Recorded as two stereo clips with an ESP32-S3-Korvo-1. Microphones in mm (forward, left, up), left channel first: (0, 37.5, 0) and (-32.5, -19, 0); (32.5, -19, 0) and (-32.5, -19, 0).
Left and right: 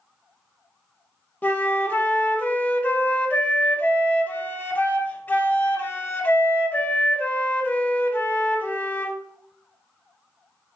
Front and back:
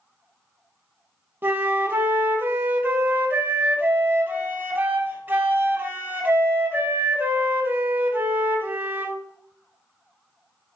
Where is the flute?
125° left, 0.5 m.